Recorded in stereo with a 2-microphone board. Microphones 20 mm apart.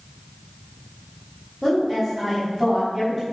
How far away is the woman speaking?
About 2.5 m.